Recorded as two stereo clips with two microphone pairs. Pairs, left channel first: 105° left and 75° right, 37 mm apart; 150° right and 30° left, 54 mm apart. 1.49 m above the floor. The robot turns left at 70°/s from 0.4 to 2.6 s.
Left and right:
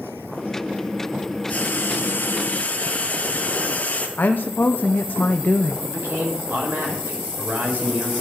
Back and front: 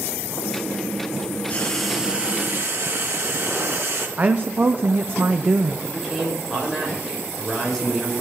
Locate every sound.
1.5 s frying: 145° left, 2 m; by 4.1 s 65° left, 2 m
4.2 s a woman speaking: 85° left, 0.6 m
5.8 s a man speaking: 60° right, 5.5 m